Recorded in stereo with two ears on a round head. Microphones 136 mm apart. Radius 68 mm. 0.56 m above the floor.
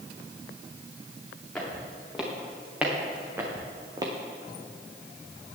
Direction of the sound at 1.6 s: Centre (ahead or behind).